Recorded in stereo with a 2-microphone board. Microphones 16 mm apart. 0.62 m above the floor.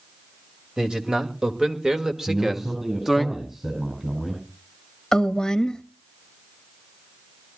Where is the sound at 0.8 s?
45° right (ahead or behind), 2.5 m; by 3.3 s 5° right (ahead or behind), 0.9 m.